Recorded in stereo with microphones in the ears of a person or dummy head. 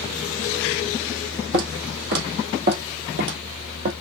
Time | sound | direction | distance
1.5 | footsteps | 55° right (ahead or behind) | 2.5 m